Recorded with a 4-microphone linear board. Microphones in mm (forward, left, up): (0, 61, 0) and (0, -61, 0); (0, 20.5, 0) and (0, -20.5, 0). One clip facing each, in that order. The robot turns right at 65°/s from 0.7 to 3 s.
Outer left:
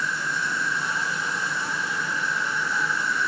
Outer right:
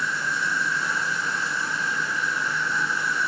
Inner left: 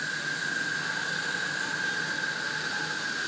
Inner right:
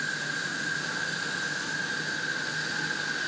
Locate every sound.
0.0 s an insect: 35° left, 1.6 m; by 3.3 s 175° right, 1.6 m